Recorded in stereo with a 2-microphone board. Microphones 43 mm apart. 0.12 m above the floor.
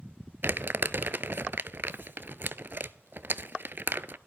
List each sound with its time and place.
0.4 s crumpling: 55° right (ahead or behind), 0.5 m